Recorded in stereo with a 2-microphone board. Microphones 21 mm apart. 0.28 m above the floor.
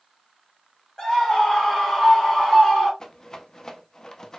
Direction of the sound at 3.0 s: 30° left (ahead or behind).